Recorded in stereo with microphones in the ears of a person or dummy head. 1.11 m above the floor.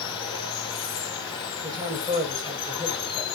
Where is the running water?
25° left (ahead or behind), 3 m.